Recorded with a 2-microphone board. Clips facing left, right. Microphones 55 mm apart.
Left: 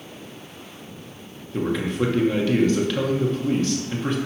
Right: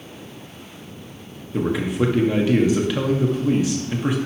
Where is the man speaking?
10° right (ahead or behind), 1.0 m.